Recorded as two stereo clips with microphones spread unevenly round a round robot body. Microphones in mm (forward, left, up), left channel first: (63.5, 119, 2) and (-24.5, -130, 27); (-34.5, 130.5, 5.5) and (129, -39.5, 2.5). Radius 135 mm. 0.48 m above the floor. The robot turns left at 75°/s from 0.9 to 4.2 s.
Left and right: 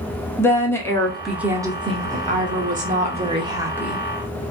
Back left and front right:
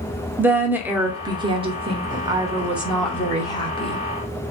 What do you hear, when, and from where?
0.4 s a woman speaking: 20° left, 0.7 m; by 4.0 s 145° left, 0.7 m